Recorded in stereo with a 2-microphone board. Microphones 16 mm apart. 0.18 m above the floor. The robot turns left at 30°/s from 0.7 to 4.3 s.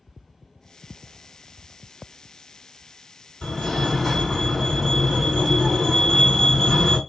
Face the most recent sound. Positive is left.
turn(degrees=20)  # may be behind; listen again after turning